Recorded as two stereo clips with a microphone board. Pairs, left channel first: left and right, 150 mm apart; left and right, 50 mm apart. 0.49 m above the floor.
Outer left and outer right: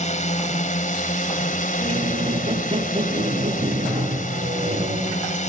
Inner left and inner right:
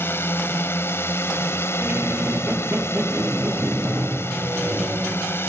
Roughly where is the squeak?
Right.